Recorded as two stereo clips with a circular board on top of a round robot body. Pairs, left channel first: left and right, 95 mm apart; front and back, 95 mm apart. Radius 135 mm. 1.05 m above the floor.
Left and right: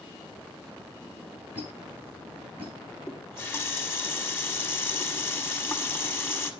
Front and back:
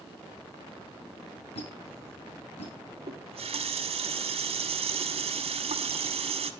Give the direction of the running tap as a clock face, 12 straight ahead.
7 o'clock.